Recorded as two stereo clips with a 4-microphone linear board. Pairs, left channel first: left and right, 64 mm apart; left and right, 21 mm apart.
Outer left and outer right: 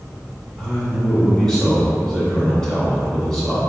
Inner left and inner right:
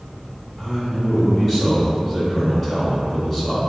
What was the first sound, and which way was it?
A man speaking, 5° left (ahead or behind).